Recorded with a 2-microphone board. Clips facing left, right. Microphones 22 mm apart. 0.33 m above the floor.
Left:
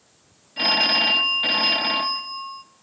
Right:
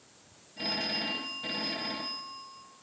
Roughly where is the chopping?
I don't hear chopping.